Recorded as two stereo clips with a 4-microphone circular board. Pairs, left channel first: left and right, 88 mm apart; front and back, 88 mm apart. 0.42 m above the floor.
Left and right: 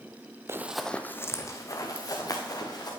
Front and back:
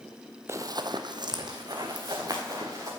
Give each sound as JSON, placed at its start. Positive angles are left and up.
{"t": 0.5, "sound": "running footsteps", "azimuth_deg": -135, "distance_m": 0.5}